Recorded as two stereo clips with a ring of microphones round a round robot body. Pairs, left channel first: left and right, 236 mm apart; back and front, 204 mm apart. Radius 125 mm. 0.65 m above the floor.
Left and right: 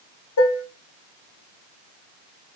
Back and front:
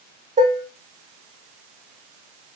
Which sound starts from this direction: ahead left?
Dishes clattering, at 0.4 s.